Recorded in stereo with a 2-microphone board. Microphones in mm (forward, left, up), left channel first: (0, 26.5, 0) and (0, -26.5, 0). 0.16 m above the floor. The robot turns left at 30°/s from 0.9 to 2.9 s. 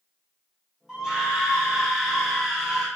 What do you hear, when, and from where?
0.9 s a scream: 15° right (ahead or behind), 1.4 m; by 2.9 s centre (ahead or behind), 1.4 m